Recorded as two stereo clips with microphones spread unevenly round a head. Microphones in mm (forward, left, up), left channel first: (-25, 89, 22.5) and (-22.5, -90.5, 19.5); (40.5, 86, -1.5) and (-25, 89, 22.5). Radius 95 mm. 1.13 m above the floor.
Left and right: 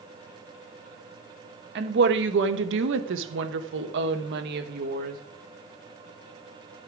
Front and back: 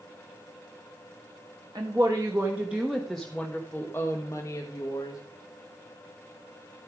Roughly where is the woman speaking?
Behind right.